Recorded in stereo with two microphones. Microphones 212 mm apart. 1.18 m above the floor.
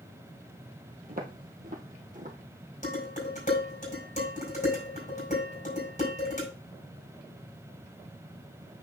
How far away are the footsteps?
About 1.9 m.